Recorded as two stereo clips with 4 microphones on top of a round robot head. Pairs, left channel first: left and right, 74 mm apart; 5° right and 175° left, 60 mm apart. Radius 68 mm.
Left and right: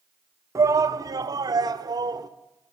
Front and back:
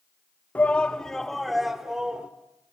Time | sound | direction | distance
0.6 | a shout | 65° right | 0.9 m